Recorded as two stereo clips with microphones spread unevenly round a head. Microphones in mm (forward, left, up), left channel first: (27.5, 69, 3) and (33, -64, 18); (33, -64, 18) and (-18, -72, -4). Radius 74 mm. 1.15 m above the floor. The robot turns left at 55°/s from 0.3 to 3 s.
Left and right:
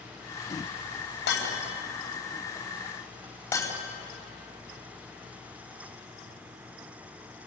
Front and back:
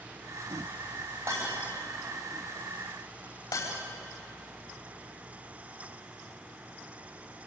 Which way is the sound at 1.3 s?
115° left.